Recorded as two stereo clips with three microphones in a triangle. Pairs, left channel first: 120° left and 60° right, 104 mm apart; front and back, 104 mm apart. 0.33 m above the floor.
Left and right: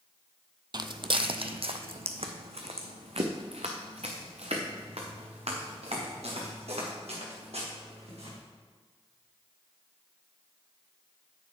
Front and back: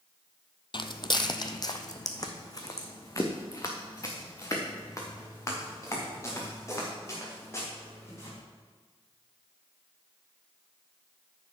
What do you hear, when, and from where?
0.7 s footsteps: 25° right, 0.6 m; by 8.4 s 60° right, 4.5 m